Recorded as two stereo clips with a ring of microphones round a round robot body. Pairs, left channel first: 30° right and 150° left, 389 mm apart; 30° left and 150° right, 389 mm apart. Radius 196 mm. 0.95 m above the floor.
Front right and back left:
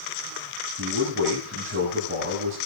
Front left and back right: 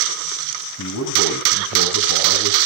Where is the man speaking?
90° left, 8 m.